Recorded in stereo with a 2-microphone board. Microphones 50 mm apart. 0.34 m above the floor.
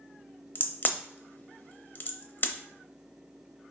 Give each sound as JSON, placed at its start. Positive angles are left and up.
{"t": 0.6, "sound": "a crack", "side_deg": 40, "distance_m": 0.7}